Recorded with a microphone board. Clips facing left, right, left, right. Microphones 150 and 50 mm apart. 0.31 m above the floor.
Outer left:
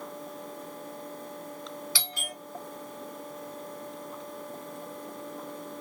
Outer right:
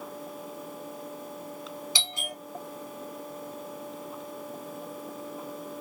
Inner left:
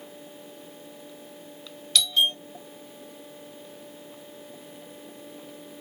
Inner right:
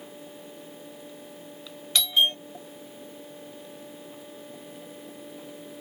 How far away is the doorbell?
About 1.3 m.